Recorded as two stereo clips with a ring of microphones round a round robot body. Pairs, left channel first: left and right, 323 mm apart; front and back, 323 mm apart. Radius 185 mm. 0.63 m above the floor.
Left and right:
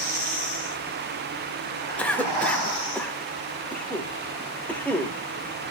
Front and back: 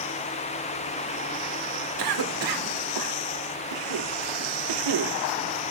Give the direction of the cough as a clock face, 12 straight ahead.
6 o'clock.